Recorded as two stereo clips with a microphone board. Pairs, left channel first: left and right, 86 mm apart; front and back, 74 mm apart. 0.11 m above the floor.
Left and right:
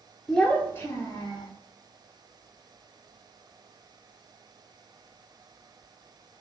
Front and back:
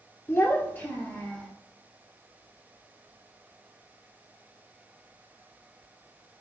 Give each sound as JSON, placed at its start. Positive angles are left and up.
{"t": 0.3, "sound": "a child speaking", "azimuth_deg": 5, "distance_m": 0.8}